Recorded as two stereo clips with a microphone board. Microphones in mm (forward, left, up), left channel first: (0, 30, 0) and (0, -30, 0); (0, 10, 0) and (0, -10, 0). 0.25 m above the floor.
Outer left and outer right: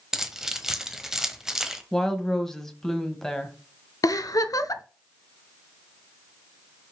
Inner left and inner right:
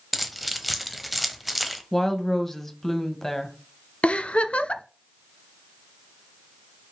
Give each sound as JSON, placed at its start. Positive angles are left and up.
{"t": 0.1, "sound": "keys jangling", "side_deg": -5, "distance_m": 0.9}
{"t": 1.9, "sound": "a woman speaking", "side_deg": 10, "distance_m": 1.2}
{"t": 4.0, "sound": "a giggle", "side_deg": 85, "distance_m": 0.5}